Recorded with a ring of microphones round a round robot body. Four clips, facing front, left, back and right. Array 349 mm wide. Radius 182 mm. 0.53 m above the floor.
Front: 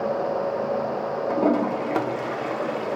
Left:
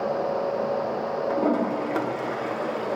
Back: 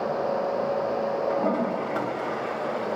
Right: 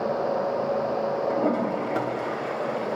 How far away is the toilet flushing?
About 1.7 m.